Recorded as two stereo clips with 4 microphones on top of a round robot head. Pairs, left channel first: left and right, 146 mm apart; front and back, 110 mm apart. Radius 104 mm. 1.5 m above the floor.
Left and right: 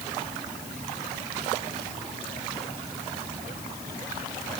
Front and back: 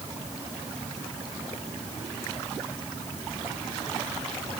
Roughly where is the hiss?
No hiss in this recording.